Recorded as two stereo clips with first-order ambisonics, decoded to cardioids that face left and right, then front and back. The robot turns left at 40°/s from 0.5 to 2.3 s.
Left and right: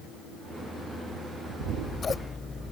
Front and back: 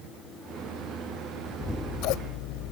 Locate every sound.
1.6 s scissors: 40° left; by 2.7 s 10° left